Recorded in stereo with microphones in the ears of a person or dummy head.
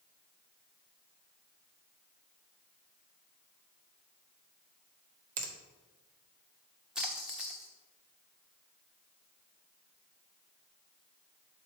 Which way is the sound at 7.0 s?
5° right (ahead or behind).